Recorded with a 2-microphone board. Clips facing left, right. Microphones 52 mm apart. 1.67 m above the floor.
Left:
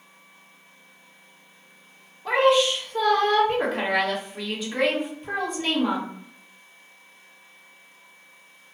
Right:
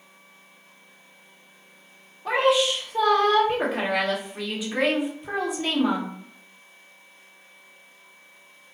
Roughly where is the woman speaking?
Centre.